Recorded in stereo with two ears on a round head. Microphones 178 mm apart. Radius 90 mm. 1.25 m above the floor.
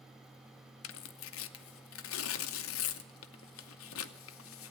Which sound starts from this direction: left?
Tearing paper, at 0.8 s.